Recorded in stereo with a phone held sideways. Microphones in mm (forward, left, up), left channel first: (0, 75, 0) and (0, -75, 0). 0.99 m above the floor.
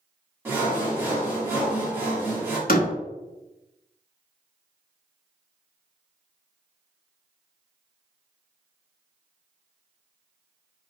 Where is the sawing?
15° right (ahead or behind), 1.7 m.